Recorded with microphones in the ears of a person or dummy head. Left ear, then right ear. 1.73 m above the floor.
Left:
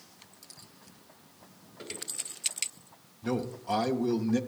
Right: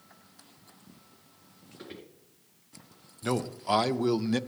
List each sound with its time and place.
1.8 s footsteps: 10° right (ahead or behind), 1.7 m
3.2 s a man speaking: 45° right (ahead or behind), 0.5 m